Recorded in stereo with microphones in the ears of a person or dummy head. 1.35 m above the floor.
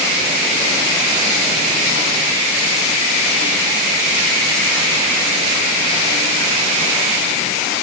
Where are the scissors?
No scissors in this recording.